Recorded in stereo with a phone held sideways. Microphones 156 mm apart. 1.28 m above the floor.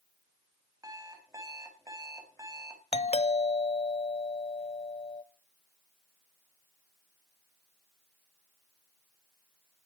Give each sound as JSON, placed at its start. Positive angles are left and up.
{"t": 0.8, "sound": "an alarm clock", "side_deg": -20, "distance_m": 3.5}
{"t": 2.9, "sound": "a doorbell", "side_deg": 45, "distance_m": 0.8}